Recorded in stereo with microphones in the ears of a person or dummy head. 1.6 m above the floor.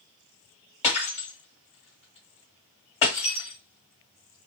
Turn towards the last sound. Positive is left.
turn(degrees=30)  # may be behind; listen again after turning